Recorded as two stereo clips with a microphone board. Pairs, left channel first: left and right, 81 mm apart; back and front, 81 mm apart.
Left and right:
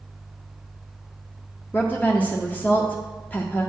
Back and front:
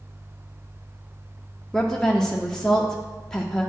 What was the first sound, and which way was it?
A woman speaking, 105° left.